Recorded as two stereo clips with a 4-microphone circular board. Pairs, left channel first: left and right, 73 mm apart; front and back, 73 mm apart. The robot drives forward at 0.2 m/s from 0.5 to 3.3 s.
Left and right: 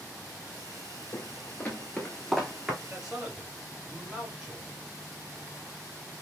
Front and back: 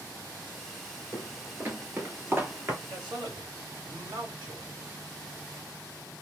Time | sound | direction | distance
1.1 | footsteps | 130° left | 1.5 m
2.8 | a man speaking | 175° right | 1.6 m